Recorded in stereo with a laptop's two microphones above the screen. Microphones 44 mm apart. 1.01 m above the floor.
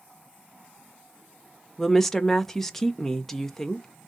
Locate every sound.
1.8 s a woman speaking: 10° left (ahead or behind), 0.5 m